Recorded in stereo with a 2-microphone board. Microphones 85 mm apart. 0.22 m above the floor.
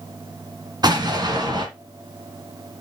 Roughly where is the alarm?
No alarm in this recording.